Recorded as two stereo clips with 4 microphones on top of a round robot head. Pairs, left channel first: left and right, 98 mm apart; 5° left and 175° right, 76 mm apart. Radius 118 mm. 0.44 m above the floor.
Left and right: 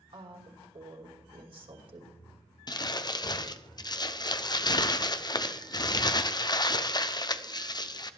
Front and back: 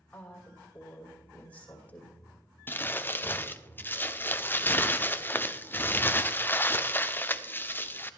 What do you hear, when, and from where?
0.1 s a woman speaking: 65° right, 2.5 m
2.7 s crumpling: 60° left, 0.9 m